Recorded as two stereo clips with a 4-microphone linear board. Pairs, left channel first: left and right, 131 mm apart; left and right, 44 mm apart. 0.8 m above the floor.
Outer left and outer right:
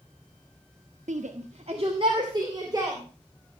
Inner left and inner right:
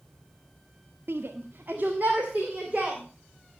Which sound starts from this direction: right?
A shout, at 1.1 s.